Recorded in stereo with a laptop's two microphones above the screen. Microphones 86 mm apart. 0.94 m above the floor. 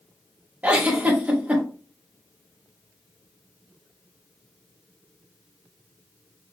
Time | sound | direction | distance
0.6 | a giggle | 20° right (ahead or behind) | 0.6 m